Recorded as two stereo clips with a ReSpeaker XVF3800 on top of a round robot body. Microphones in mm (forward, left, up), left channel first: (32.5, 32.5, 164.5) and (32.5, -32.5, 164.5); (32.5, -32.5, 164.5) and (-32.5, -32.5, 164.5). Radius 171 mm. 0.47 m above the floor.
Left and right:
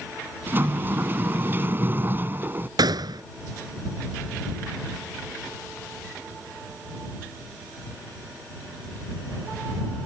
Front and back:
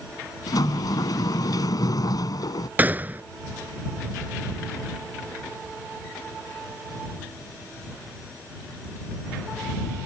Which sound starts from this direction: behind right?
A gunshot, at 2.8 s.